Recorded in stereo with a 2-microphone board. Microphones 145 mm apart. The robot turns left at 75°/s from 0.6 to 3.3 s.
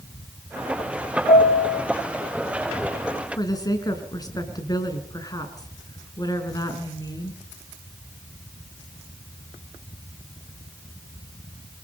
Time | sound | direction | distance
1.3 | a piano | 130° left | 2.0 m
3.4 | a woman speaking | 25° left (ahead or behind) | 4 m